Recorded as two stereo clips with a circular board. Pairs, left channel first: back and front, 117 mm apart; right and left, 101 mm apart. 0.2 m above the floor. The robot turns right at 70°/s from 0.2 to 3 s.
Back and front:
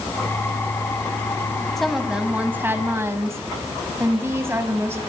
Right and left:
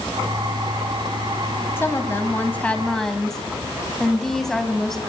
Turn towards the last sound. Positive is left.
turn(degrees=-10)